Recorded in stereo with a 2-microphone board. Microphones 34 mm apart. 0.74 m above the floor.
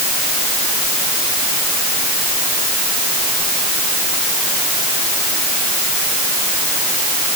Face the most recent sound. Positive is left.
No sound to turn to.